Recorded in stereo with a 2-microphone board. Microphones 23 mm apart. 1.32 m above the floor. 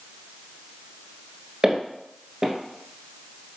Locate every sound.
1.6 s footsteps: 20° right (ahead or behind), 1.3 m